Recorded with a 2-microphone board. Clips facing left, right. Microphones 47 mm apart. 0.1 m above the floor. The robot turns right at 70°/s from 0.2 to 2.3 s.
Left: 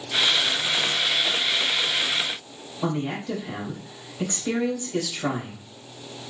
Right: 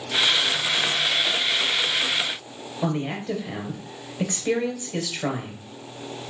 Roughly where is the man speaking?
Right.